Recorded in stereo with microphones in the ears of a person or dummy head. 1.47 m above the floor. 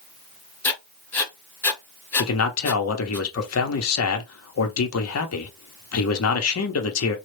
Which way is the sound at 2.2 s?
80° left.